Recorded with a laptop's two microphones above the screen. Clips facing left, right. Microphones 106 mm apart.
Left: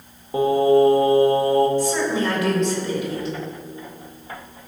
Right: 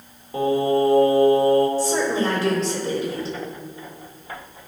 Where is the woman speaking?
35° right (ahead or behind), 3.5 m.